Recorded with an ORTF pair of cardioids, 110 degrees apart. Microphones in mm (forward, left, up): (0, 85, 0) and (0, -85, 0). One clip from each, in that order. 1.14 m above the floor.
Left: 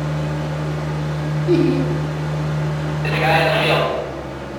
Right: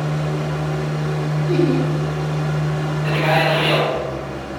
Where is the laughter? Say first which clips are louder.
Left 2 dB; 45° left, 1.5 m.